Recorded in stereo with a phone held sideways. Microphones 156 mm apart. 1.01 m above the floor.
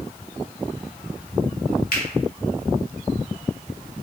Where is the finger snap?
70° left (ahead or behind), 1.8 m.